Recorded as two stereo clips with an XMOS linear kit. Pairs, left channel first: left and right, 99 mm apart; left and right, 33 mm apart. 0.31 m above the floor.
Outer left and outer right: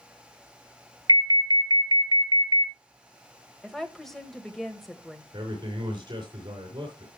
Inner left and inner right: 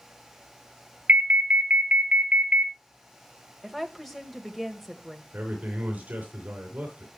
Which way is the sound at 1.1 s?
45° right (ahead or behind).